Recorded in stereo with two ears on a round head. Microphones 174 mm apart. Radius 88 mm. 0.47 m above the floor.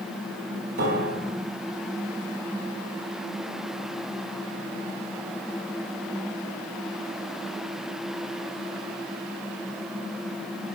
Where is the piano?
70° right (ahead or behind), 4 m.